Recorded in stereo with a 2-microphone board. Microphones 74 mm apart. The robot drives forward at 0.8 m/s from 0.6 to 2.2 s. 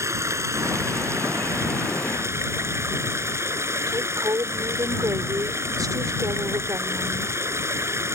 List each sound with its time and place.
0.0 s running water: 40° right (ahead or behind)
3.9 s a woman speaking: 60° right (ahead or behind)